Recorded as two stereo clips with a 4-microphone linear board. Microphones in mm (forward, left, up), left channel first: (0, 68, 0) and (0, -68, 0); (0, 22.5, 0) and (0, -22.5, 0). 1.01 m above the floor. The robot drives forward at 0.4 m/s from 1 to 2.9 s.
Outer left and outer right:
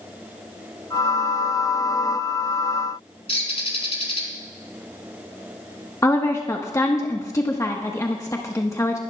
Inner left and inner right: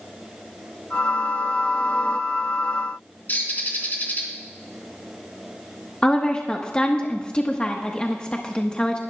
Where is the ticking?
No ticking in this recording.